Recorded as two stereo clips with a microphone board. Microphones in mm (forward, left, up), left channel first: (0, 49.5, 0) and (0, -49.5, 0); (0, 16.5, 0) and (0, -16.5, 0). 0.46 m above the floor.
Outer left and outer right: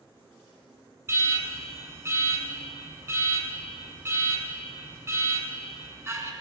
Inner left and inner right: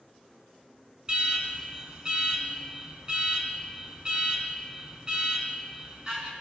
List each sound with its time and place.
1.1 s an alarm: 30° right (ahead or behind), 3 m